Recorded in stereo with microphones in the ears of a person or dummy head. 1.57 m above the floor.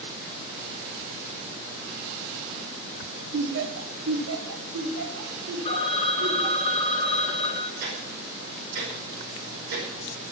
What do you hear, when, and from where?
3.3 s laughter: 60° right (ahead or behind), 1.3 m; by 6.7 s 45° right (ahead or behind), 3.5 m
5.7 s a phone ringing: 35° left (ahead or behind), 1.3 m
7.8 s ticking: 55° right (ahead or behind), 5.5 m